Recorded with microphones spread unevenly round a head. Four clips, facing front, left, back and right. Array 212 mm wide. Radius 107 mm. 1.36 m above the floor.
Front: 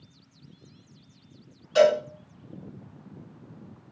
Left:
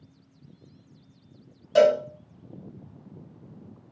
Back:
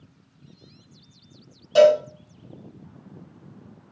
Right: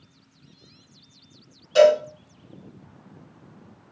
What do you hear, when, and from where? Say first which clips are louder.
1.8 s a cowbell: right 3 dB, back 5 dB; 135° left, 4.5 m